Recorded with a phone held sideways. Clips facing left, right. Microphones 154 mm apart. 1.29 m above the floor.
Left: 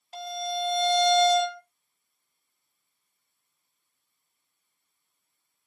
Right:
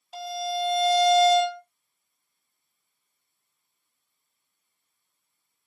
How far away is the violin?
About 1.4 m.